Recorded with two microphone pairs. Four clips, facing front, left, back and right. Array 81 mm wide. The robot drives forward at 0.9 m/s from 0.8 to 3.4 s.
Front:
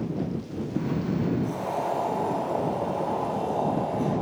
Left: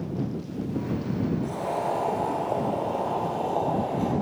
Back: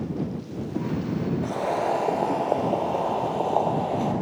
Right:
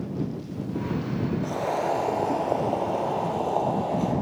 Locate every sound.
1.4 s boiling: 145° right, 1.6 m; by 4.1 s 165° right, 3 m